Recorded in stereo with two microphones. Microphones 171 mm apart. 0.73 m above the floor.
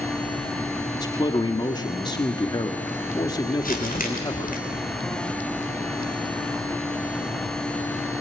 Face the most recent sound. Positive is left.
turn(degrees=55)  # may be behind; listen again after turning